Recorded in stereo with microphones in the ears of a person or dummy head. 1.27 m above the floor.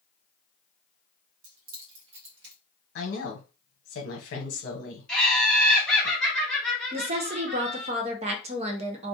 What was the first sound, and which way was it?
Keys jangling, 75° right (ahead or behind).